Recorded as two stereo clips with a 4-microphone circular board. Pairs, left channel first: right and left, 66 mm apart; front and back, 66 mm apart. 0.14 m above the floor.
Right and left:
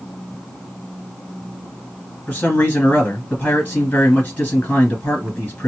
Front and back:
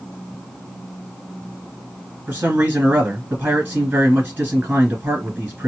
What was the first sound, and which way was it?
A man speaking, 140° right.